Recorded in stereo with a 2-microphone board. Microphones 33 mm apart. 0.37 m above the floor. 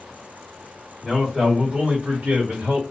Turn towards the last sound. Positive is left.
turn(degrees=-50)  # may be behind; listen again after turning